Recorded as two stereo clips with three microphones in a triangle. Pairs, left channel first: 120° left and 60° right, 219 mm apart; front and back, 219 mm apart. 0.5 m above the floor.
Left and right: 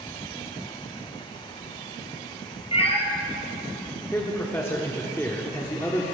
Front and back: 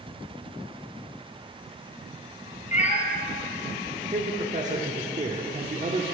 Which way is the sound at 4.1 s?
170° right.